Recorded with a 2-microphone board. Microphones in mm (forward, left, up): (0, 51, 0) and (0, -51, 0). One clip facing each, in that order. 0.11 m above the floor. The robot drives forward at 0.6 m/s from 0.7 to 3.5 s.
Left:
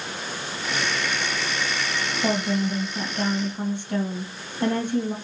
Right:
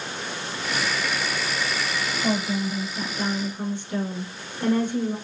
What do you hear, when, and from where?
2.2 s a woman speaking: 60° left (ahead or behind), 3 m; by 5.2 s 55° left (ahead or behind), 3 m